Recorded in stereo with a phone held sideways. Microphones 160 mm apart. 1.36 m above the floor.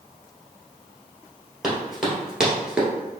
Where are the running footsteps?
Centre (ahead or behind), 2 m; by 2.9 s 5° right (ahead or behind), 1.5 m.